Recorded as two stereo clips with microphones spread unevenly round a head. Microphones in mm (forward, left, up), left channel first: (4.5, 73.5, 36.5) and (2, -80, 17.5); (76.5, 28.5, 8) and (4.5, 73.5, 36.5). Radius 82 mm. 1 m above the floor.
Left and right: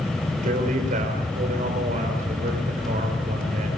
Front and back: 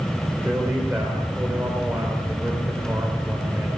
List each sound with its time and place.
0.4 s a man speaking: 135° right, 4 m